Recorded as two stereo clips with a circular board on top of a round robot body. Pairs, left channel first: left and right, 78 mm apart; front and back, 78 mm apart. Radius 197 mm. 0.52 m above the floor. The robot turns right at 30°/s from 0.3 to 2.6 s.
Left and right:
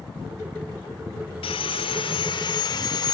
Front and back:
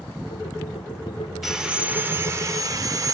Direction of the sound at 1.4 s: 90° left.